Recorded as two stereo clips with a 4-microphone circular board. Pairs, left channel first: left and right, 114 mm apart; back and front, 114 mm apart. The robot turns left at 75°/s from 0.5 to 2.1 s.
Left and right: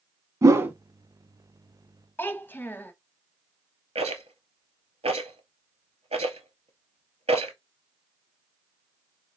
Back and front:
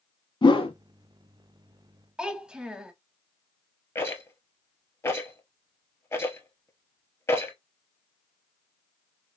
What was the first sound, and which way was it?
A whoosh, 145° right.